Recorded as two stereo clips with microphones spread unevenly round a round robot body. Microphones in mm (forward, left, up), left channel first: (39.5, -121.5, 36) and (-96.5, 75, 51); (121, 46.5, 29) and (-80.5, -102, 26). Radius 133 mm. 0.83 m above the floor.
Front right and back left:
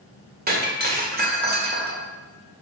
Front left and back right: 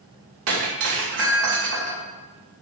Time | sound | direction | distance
0.5 | breaking glass | 175° left | 2 m